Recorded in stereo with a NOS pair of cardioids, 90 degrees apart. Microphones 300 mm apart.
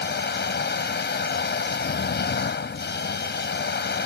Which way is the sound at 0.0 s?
40° left.